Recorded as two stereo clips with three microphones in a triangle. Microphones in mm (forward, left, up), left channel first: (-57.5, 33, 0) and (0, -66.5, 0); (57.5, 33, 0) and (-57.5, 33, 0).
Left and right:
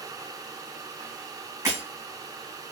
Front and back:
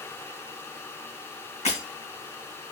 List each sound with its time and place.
1.6 s breaking glass: 5° left, 2 m